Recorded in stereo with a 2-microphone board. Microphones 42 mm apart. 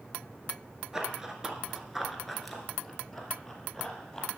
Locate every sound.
0.9 s running footsteps: 15° right (ahead or behind), 1.2 m; by 4.3 s 10° left (ahead or behind), 2 m